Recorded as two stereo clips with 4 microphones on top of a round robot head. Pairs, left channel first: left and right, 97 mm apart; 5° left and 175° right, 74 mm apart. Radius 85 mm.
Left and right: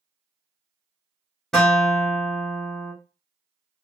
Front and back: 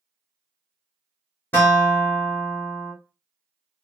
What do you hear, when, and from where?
1.5 s a guitar: 5° left, 0.6 m